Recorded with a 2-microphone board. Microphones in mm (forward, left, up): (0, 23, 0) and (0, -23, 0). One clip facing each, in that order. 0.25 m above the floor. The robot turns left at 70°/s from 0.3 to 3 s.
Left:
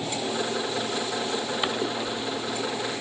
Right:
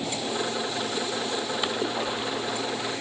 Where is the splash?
10° left; by 2.9 s 80° right.